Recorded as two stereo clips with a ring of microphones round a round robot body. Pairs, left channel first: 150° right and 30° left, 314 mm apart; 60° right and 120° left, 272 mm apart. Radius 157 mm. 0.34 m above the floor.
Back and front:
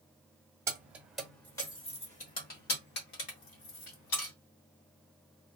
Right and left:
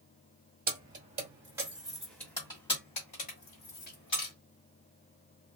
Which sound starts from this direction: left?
Keys jangling, at 0.7 s.